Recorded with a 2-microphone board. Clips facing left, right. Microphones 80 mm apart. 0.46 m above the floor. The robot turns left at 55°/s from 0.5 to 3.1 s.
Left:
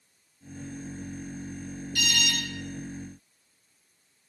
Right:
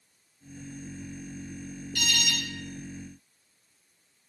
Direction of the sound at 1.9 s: 15° left (ahead or behind).